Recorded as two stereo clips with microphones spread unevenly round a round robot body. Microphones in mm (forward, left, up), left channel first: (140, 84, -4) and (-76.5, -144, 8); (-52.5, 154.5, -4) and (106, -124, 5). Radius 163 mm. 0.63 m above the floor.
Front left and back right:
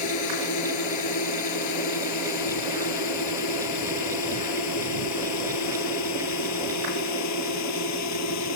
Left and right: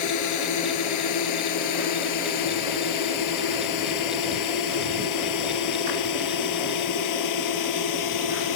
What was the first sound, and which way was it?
A drone, 85° left.